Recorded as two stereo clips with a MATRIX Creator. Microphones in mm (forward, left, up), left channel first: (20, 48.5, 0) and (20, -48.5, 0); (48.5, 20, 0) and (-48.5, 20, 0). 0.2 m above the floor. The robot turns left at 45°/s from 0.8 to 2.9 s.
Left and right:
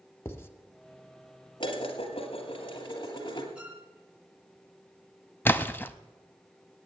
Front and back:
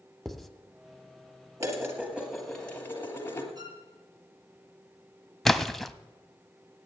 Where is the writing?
90° left, 0.8 m.